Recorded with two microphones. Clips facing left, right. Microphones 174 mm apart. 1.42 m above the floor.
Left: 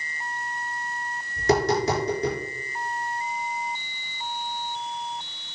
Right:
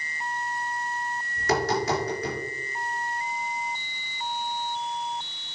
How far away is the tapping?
About 4.5 m.